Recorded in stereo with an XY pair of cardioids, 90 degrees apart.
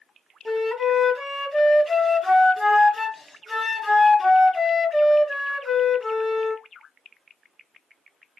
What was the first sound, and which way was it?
A flute, 25° left.